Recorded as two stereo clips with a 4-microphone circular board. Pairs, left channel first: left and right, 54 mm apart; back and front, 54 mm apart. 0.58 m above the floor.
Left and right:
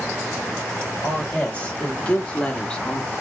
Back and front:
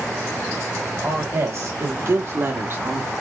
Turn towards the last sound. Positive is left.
turn(degrees=20)